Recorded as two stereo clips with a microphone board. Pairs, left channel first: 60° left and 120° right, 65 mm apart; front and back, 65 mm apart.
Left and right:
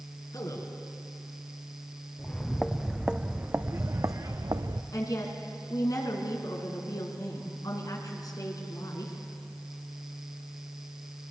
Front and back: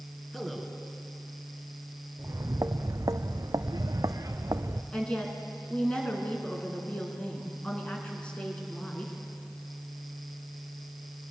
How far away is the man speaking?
About 3.5 m.